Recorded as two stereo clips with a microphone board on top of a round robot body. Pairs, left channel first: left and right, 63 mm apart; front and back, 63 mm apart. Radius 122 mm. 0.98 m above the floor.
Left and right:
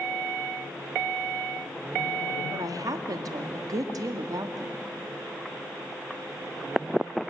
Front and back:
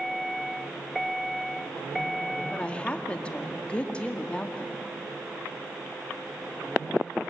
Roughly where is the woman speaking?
Right.